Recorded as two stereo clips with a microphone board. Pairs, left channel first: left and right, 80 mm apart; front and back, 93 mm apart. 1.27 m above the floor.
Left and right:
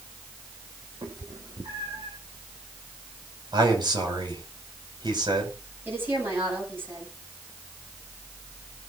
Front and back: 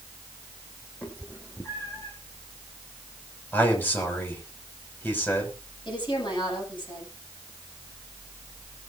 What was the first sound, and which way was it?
A cat meowing, 70° right.